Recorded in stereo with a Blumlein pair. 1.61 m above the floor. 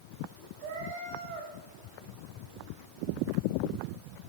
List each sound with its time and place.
0.6 s a cat meowing: 40° right, 3.5 m